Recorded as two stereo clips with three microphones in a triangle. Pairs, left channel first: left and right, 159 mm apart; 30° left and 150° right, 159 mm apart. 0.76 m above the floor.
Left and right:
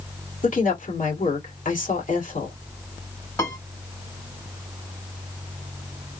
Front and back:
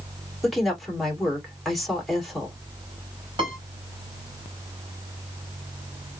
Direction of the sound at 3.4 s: 160° left.